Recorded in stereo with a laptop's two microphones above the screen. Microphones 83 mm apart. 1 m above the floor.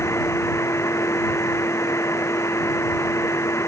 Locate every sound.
0.0 s a machine running: 35° left (ahead or behind)